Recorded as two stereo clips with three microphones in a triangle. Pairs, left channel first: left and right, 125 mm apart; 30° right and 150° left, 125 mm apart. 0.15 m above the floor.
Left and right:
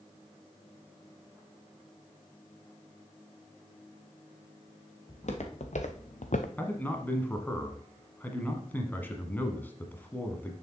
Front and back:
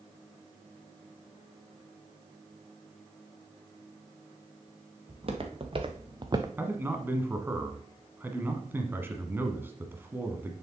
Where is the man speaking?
125° left, 1.1 m.